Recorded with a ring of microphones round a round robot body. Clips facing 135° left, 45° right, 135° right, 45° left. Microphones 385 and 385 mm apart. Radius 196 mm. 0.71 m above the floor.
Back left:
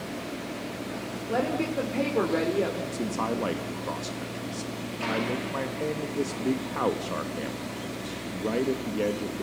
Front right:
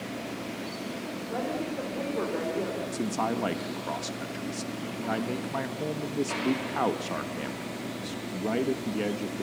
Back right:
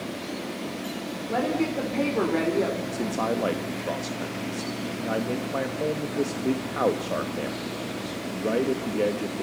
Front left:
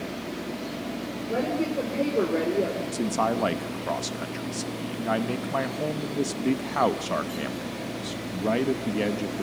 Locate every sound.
1.3 s a woman speaking: 155° left, 3 m
2.9 s a man speaking: 20° left, 1.0 m